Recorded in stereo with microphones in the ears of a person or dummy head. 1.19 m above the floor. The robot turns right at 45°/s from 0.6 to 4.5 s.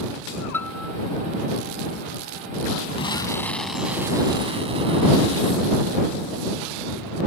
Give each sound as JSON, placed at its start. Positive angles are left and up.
{"t": 0.5, "sound": "a piano", "side_deg": 15}
{"t": 3.0, "sound": "an explosion", "azimuth_deg": 145}